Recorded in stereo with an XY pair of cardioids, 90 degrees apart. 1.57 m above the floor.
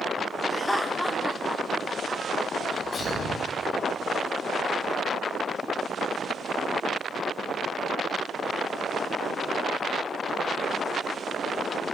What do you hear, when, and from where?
0.5 s laughter: 20° left, 1.7 m; by 3.5 s 70° right, 2.5 m
2.6 s a sneeze: 50° left, 8.5 m